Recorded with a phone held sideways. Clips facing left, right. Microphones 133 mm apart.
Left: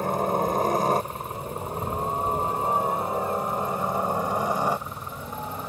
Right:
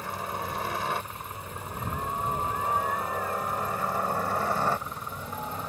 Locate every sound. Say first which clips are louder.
0.0 s a helicopter: left 10 dB; 45° left (ahead or behind); by 5.7 s 5° left (ahead or behind)